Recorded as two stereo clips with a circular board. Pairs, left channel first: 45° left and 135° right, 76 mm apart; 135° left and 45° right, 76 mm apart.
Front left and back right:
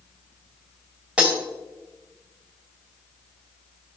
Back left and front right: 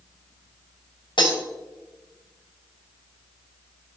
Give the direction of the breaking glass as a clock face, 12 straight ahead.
7 o'clock.